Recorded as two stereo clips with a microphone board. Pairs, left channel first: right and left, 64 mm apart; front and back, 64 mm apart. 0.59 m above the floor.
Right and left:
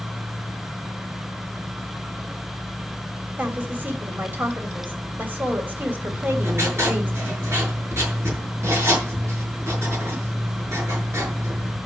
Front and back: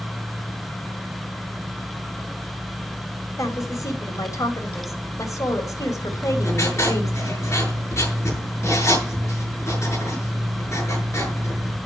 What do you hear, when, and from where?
3.4 s a woman speaking: 30° left, 2.5 m
6.1 s writing: 45° left, 7.5 m